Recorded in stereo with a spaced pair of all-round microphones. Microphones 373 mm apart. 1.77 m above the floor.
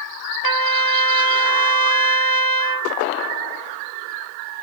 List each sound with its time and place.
0.4 s a trumpet: 65° right (ahead or behind), 0.9 m